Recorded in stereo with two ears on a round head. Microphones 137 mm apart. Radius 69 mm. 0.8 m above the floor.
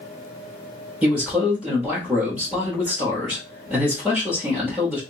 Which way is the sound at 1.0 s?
10° right (ahead or behind).